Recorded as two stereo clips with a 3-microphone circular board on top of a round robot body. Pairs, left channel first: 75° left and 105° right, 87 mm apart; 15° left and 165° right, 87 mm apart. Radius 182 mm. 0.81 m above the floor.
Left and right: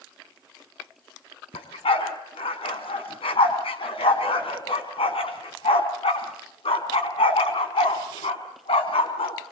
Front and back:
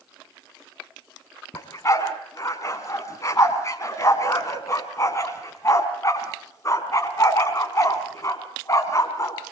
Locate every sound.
1.5 s a dog barking: 70° left, 3.5 m